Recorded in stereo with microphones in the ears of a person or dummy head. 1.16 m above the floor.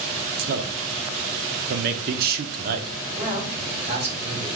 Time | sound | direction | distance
0.4 | a man speaking | 50° right (ahead or behind) | 0.7 m
3.2 | a man speaking | 15° right (ahead or behind) | 3.5 m